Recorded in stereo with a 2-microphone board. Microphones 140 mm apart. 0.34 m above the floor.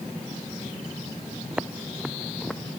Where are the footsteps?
10° right (ahead or behind); by 2.8 s 10° left (ahead or behind).